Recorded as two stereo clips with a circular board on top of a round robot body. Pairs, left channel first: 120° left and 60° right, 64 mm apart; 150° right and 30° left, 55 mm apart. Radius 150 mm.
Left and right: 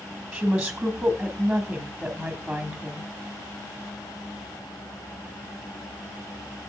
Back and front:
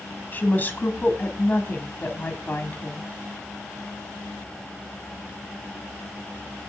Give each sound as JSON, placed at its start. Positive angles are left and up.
{"t": 0.3, "sound": "a woman speaking", "azimuth_deg": -135, "distance_m": 1.5}